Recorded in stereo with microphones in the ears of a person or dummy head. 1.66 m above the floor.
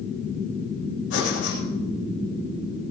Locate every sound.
1.1 s breathing: 70° left (ahead or behind), 8 m